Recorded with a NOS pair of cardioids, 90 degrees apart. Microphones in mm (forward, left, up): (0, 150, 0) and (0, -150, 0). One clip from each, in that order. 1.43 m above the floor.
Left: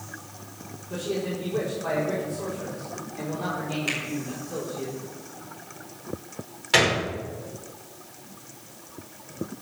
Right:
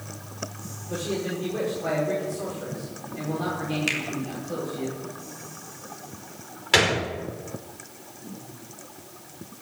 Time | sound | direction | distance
0.9 | a man speaking | 15° right | 5.5 m
3.9 | a finger snap | 40° right | 3.5 m
6.7 | a gunshot | 25° right | 5 m